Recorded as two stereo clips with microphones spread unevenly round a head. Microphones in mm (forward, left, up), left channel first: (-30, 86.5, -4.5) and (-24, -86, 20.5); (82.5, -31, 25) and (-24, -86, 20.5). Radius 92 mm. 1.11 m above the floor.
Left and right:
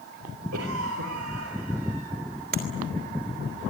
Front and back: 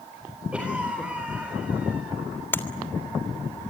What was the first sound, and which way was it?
A cough, 70° right.